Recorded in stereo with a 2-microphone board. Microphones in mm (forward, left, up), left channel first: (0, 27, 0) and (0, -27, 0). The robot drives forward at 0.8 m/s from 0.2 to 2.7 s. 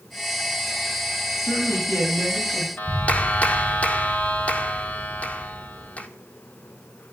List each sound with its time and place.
1.4 s a woman speaking: 75° left (ahead or behind), 9 m; by 2.7 s 85° left, 8.5 m
2.8 s a clap: 30° left (ahead or behind), 1.6 m